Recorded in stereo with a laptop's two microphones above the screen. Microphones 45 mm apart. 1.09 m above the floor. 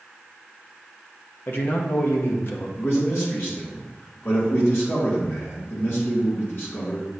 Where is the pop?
No pop in this recording.